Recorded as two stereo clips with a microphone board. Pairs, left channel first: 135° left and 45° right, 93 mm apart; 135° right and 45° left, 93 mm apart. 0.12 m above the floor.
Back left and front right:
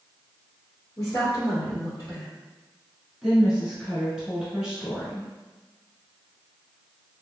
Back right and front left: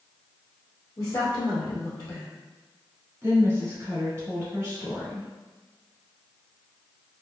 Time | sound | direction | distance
1.0 | a woman speaking | straight behind | 1.9 m
3.2 | a woman speaking | 25° left | 1.8 m